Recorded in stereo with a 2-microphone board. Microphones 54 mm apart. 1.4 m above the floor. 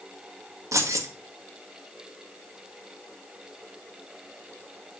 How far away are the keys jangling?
About 1.9 m.